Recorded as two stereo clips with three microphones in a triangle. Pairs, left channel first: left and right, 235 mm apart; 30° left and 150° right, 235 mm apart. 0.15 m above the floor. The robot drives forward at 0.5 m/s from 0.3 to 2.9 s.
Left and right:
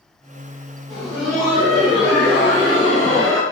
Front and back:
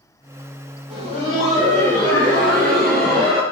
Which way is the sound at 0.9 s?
Straight behind.